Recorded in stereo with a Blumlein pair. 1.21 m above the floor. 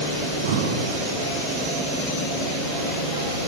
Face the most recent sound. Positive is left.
turn(degrees=-60)